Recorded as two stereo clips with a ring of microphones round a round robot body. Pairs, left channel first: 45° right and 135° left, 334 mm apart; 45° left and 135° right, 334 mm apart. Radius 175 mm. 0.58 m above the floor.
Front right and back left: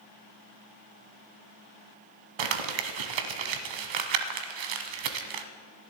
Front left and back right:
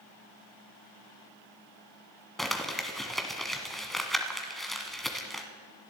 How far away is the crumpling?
About 1.3 m.